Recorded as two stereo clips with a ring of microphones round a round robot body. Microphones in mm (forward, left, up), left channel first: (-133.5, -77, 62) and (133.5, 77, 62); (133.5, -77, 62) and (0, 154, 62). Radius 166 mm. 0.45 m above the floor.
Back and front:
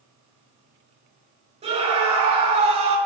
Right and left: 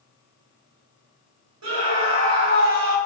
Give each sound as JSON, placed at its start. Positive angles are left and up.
{"t": 1.6, "sound": "a scream", "azimuth_deg": 100, "distance_m": 9.0}